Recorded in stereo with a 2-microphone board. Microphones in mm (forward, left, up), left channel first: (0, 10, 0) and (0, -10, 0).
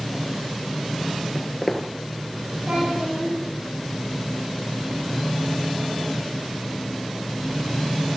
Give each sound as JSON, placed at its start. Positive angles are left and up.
{"t": 1.4, "sound": "footsteps", "side_deg": 15, "distance_m": 1.1}
{"t": 2.7, "sound": "a child speaking", "side_deg": -70, "distance_m": 8.5}